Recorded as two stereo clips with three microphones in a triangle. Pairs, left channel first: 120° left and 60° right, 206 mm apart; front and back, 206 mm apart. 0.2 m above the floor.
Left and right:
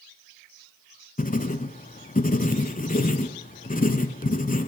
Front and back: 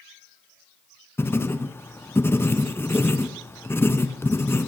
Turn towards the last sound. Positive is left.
turn(degrees=80)